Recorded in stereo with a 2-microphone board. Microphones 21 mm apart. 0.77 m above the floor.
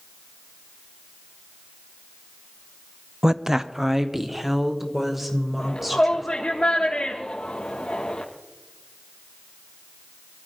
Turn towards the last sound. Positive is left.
turn(degrees=70)  # may be behind; listen again after turning